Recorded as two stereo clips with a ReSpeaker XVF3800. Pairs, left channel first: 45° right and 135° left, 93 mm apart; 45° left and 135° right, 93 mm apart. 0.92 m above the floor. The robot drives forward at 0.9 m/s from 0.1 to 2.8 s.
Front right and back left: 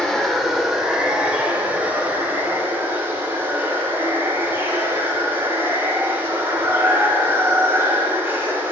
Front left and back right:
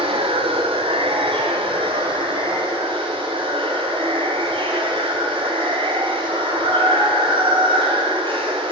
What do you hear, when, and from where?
0.0 s running water: 130° right, 2 m; by 8.7 s 155° right, 4 m